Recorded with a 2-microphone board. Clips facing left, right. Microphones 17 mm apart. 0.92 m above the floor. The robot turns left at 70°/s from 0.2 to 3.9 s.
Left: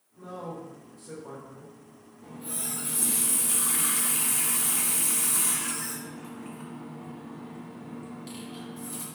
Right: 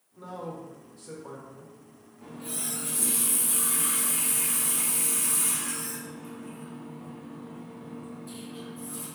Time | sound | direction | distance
0.2 | a man speaking | 90° right | 1.5 m
2.2 | a running tap | 125° right | 1.1 m